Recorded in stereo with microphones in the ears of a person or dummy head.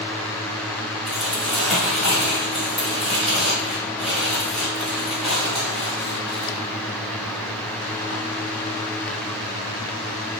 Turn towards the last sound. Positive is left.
turn(degrees=0)  # may be behind; listen again after turning